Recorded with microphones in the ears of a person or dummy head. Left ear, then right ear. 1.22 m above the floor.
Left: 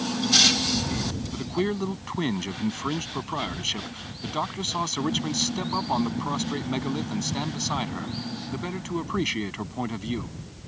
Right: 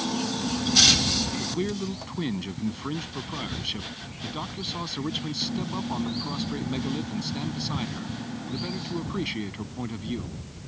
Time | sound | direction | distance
1.3 | a man speaking | 30° left (ahead or behind) | ?